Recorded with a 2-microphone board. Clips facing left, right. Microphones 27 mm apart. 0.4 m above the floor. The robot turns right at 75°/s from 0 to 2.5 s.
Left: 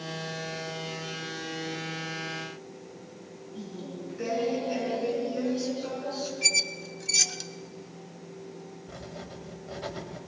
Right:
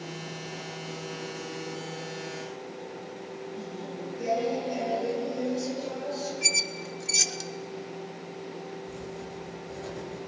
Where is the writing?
50° left (ahead or behind), 2 m.